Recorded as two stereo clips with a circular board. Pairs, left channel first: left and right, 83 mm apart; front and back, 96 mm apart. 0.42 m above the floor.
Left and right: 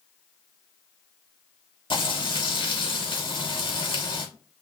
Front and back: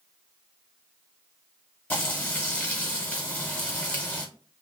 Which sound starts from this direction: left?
Frying, at 1.9 s.